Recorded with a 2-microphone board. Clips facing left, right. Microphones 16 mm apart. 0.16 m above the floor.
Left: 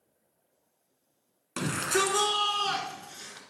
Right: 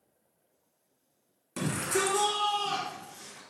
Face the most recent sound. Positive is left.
turn(degrees=55)  # may be behind; listen again after turning